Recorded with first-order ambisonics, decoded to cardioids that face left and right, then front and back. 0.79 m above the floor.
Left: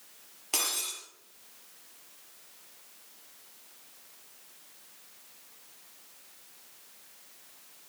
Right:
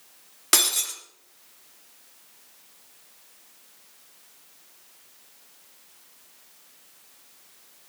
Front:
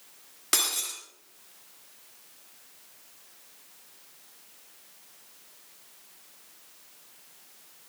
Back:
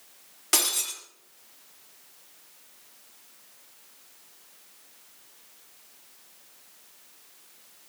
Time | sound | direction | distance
0.5 | breaking glass | 85° right | 3 m